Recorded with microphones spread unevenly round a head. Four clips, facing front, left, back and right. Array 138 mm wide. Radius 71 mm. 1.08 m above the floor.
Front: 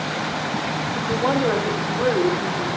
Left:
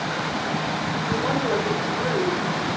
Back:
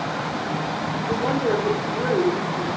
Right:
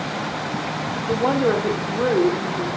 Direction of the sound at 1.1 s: 105° right.